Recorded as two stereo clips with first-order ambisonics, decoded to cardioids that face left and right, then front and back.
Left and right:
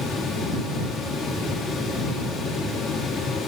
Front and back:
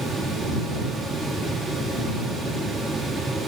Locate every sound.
Only background noise.